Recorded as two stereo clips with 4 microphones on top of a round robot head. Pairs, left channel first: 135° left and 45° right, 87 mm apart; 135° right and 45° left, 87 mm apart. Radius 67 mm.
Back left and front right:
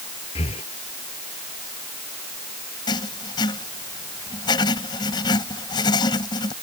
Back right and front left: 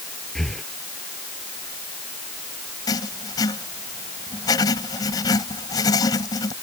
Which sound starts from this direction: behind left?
Breathing, at 0.3 s.